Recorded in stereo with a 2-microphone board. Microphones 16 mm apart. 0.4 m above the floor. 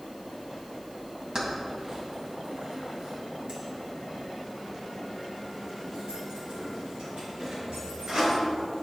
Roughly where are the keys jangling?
Right.